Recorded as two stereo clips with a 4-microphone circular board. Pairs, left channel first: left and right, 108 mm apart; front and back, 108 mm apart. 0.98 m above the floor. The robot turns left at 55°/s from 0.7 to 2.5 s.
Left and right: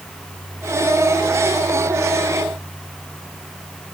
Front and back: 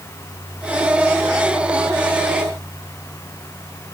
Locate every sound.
Only background noise.